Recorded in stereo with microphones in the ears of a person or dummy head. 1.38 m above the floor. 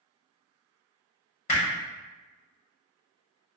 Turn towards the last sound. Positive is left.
turn(degrees=35)  # may be behind; listen again after turning